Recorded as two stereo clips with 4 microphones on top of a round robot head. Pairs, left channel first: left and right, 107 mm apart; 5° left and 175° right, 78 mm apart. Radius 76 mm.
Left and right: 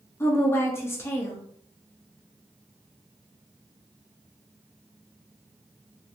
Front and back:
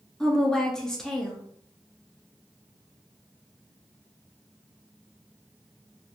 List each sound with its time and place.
0.2 s a woman speaking: 75° left, 0.6 m